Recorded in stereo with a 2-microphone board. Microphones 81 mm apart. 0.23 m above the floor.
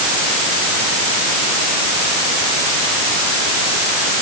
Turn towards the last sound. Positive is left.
No sound to turn to.